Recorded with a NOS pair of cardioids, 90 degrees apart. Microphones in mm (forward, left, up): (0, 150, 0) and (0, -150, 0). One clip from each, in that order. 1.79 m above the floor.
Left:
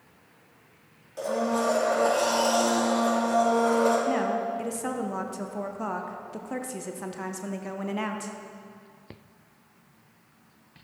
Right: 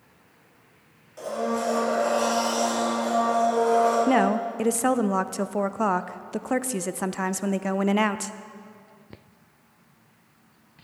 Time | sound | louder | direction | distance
1.2 | a blender | left 1 dB | 30° left | 4.5 m
4.1 | a woman speaking | right 4 dB | 40° right | 0.5 m